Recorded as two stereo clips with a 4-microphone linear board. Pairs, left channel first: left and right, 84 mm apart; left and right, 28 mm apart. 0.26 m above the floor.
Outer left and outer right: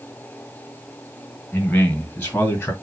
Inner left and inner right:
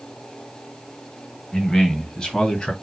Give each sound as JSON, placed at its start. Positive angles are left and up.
{"t": 1.5, "sound": "a man speaking", "side_deg": 20, "distance_m": 1.5}